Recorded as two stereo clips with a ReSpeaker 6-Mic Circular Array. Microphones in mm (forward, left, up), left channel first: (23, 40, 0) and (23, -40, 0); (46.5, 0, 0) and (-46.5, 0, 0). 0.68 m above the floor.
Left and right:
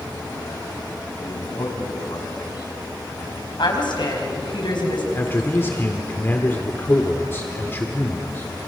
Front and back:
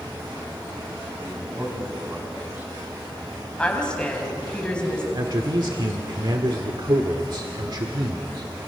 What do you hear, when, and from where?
1.2 s a man speaking: 110° left, 5.5 m
3.6 s a woman speaking: 80° left, 4.5 m
5.2 s a man speaking: 150° left, 1.6 m